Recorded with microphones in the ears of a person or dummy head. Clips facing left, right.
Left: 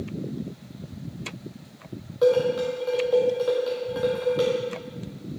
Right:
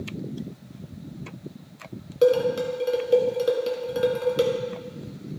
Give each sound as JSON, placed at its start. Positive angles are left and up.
{"t": 2.2, "sound": "dishes clattering", "side_deg": -30, "distance_m": 1.8}